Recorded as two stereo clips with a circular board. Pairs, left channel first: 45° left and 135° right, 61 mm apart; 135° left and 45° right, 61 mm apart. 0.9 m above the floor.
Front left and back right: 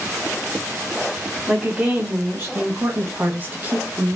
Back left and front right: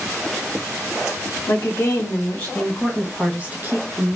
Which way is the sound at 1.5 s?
170° left.